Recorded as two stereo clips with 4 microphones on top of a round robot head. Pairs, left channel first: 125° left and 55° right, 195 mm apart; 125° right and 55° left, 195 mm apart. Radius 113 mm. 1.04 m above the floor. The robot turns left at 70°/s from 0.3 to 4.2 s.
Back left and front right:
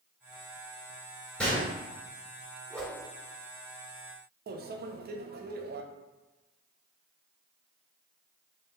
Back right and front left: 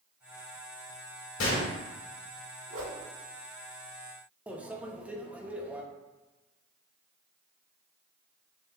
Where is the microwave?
30° right, 0.6 m.